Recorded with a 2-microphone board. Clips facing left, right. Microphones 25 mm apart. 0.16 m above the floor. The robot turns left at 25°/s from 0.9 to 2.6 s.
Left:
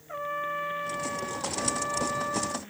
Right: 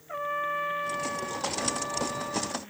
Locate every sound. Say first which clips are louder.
0.1 s a trumpet: right 2 dB; 170° right; by 2.6 s 145° left